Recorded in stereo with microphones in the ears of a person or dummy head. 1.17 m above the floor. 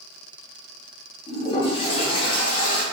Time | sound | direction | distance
1.3 | a toilet flushing | 25° left (ahead or behind) | 0.8 m